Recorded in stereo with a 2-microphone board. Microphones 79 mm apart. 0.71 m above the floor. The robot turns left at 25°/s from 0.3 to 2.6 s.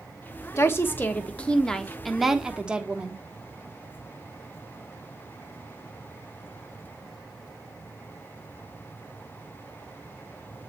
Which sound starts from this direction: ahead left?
A woman speaking, at 0.6 s.